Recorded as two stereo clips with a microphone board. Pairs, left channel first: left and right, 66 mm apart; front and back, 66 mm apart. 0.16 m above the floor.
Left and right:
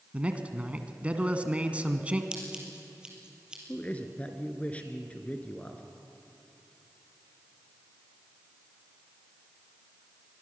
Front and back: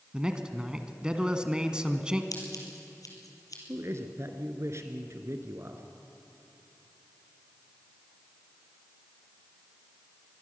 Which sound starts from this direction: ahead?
Scissors, at 2.3 s.